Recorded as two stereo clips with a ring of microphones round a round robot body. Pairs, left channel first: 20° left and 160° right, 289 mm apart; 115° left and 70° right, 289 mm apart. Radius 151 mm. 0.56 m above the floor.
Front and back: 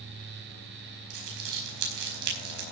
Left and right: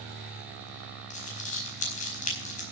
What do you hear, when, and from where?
1.1 s crumpling: straight behind, 4.5 m